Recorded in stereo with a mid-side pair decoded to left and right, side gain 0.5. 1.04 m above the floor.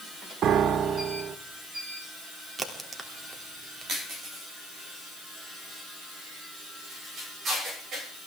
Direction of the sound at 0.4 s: 60° right.